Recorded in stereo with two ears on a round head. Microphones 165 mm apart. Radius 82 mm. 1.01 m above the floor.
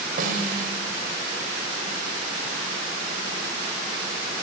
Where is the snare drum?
50° right (ahead or behind), 4.5 m.